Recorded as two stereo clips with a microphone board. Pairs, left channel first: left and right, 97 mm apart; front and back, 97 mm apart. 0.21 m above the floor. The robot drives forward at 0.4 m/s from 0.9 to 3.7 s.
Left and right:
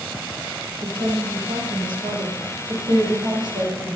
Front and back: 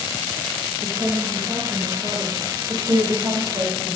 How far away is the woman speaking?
About 4 m.